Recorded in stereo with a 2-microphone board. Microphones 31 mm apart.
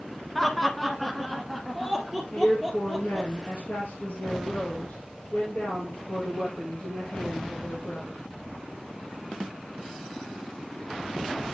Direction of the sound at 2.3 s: 55° left (ahead or behind).